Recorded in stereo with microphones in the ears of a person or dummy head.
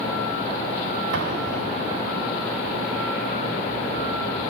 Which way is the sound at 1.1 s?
75° right (ahead or behind).